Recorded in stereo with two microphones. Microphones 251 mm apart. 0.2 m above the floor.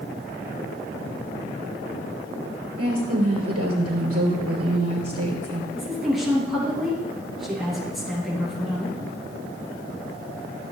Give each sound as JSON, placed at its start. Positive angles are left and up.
{"t": 2.8, "sound": "a woman speaking", "side_deg": -70, "distance_m": 3.5}
{"t": 5.7, "sound": "a woman speaking", "side_deg": 0, "distance_m": 3.5}